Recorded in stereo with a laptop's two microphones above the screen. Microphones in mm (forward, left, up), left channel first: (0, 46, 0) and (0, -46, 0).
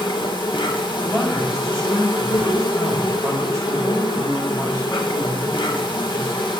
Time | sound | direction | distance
0.0 | an insect | 60° left (ahead or behind) | 1.4 m
1.0 | a man speaking | 20° left (ahead or behind) | 5.5 m